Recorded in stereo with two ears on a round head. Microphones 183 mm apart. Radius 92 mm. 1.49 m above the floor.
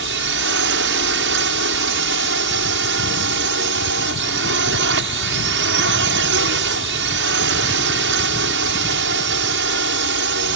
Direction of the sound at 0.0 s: 65° right (ahead or behind).